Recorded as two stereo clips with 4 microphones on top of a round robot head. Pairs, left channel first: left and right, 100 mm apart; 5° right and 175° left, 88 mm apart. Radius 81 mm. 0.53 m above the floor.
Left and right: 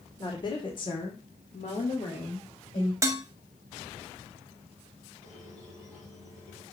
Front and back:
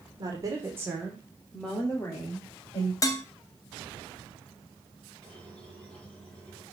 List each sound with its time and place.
0.2 s a woman speaking: 135° left, 2 m; by 2.9 s 45° left, 3 m
3.0 s dishes clattering: 40° right, 0.8 m
5.2 s a squeak: 75° left, 5 m